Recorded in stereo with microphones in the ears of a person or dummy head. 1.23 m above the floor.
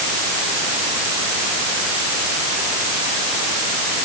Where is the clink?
I don't hear a clink.